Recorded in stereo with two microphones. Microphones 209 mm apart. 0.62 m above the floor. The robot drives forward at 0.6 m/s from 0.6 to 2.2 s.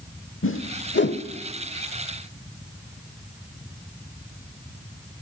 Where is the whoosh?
80° left, 0.8 m; by 1.2 s 55° left (ahead or behind), 1.0 m.